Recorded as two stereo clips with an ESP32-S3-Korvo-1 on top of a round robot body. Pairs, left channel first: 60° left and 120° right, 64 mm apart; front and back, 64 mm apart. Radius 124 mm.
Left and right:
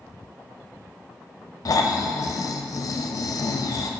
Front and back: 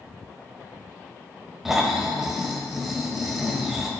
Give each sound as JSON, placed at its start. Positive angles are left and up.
{"t": 1.6, "sound": "snoring", "azimuth_deg": 95, "distance_m": 0.9}